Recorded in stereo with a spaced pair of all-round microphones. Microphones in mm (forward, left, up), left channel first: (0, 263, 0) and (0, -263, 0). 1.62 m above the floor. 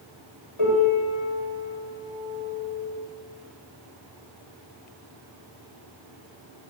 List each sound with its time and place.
0.6 s a piano: 75° left (ahead or behind), 9 m